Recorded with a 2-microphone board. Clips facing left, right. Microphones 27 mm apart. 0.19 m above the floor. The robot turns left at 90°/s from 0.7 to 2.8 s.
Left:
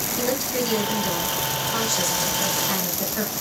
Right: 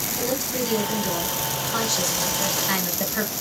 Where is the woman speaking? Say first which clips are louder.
Left 2 dB; 25° left (ahead or behind), 1.0 m; by 3.3 s 25° right (ahead or behind), 1.0 m.